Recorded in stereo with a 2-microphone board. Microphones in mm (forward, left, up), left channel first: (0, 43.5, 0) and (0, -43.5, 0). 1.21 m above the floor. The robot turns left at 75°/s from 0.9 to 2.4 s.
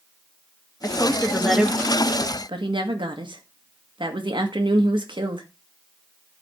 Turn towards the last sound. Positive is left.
turn(degrees=-75)